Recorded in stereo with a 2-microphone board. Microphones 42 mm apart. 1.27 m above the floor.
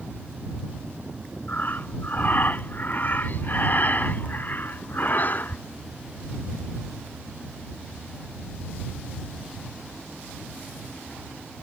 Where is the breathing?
45° left (ahead or behind).